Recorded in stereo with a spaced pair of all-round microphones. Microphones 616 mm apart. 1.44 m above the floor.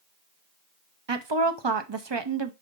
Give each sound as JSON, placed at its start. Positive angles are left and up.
{"t": 1.1, "sound": "a woman speaking", "side_deg": -45, "distance_m": 0.8}